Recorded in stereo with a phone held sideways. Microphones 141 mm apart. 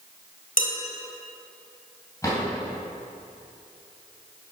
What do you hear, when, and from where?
0.6 s dishes clattering: 65° left (ahead or behind), 2.0 m
2.2 s a drawer: 20° left (ahead or behind), 3.5 m